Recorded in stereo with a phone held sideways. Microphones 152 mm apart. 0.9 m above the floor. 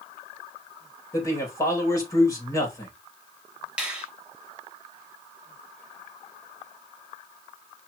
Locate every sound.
1.1 s a man speaking: 20° left (ahead or behind), 4.5 m
3.8 s a finger snap: 5° right (ahead or behind), 3 m